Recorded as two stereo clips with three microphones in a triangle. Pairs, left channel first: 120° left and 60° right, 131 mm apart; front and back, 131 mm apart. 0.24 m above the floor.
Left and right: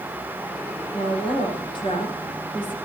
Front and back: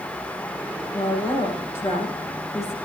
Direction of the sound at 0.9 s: 70° left.